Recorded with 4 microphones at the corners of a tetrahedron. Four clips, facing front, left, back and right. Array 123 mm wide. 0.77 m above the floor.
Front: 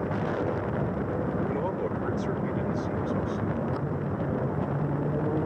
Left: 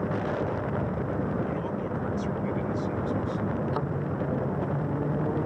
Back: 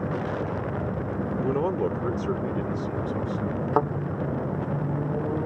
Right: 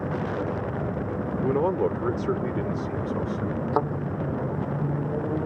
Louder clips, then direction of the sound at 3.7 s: Right 6 dB, back 9 dB; 145° right.